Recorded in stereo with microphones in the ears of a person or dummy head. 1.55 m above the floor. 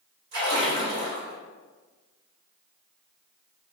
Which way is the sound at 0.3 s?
50° right (ahead or behind).